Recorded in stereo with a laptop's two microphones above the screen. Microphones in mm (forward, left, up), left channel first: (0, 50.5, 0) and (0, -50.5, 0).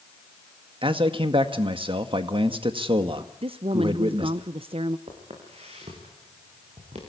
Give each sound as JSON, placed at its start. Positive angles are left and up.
{"t": 0.8, "sound": "a man speaking", "side_deg": -60, "distance_m": 1.8}
{"t": 3.4, "sound": "a woman speaking", "side_deg": -65, "distance_m": 0.6}
{"t": 5.1, "sound": "footsteps", "side_deg": -80, "distance_m": 7.0}